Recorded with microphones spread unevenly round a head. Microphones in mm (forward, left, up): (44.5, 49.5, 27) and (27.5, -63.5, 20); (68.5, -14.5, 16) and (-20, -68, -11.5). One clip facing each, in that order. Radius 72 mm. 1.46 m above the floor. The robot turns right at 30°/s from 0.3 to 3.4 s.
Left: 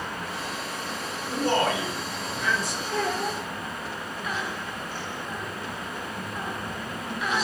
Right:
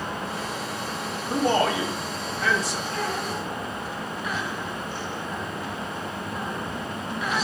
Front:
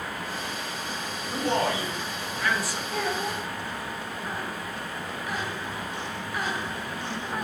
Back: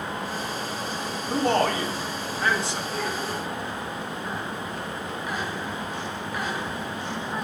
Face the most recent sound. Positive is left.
turn(degrees=110)